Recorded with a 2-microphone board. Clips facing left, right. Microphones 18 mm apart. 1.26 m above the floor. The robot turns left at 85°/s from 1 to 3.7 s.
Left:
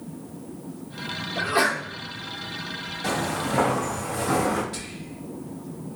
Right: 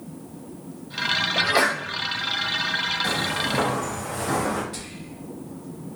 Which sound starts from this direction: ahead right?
A sneeze, at 1.4 s.